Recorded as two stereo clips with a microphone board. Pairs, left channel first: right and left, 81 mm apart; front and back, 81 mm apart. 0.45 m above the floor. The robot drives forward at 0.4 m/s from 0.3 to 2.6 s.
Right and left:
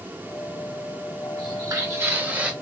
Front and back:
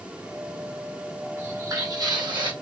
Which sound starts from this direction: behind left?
Footsteps, at 1.4 s.